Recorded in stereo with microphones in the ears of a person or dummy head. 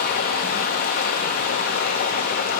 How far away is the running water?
About 0.9 m.